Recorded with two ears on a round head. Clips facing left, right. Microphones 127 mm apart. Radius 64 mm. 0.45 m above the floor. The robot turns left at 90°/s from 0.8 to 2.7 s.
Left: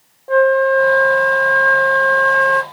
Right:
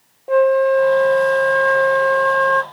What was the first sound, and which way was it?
A flute, 20° right (ahead or behind).